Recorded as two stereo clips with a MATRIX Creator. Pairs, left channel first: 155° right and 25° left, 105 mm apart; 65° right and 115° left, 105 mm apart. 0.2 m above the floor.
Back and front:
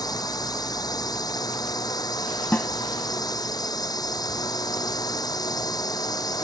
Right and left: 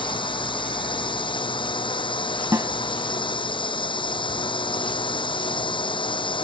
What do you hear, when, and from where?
0.0 s a drone: 105° right
2.5 s a snare drum: 145° left